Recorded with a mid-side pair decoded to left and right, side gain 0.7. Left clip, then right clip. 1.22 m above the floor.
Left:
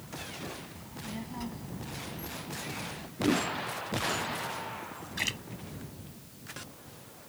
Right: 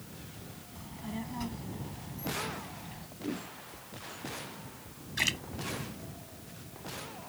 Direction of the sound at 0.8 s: 5° right.